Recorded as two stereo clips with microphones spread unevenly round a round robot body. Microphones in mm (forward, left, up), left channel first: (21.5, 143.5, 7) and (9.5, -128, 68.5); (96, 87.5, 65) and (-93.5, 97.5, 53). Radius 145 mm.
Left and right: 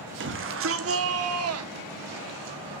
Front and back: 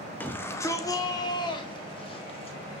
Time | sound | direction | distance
0.2 | a shout | 80° right | 1.4 m